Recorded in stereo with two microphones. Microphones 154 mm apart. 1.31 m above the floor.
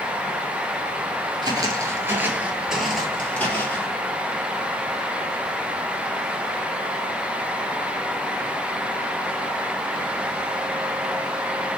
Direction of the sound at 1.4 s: 25° right (ahead or behind).